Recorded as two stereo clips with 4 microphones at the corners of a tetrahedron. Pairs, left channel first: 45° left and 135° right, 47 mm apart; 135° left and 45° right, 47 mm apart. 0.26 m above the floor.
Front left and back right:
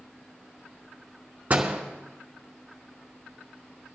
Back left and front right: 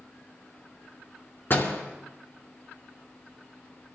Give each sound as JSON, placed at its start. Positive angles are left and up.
{"t": 1.5, "sound": "a door slam", "azimuth_deg": 170, "distance_m": 2.0}